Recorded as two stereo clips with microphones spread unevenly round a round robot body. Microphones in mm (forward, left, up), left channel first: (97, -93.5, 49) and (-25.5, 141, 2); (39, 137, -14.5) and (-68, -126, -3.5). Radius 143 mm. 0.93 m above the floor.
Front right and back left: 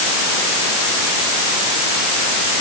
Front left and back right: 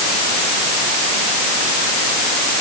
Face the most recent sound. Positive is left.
No sound to turn to.